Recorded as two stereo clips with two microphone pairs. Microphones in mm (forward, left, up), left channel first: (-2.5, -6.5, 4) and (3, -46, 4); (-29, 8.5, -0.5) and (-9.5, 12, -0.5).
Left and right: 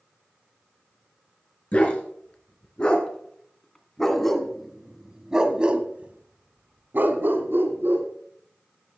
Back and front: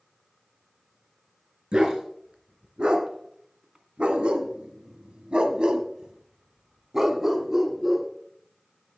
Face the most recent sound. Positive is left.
turn(degrees=-65)